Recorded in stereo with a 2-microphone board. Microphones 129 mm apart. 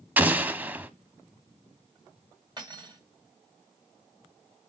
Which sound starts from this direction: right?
Cutlery clinking, at 2.6 s.